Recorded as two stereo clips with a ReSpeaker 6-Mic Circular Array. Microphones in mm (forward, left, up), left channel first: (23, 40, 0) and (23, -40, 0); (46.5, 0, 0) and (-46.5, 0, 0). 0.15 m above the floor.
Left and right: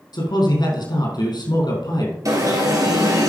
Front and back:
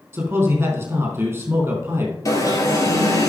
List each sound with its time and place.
0.1 s a man speaking: 115° left, 4.5 m
2.2 s an alarm: 50° right, 2.5 m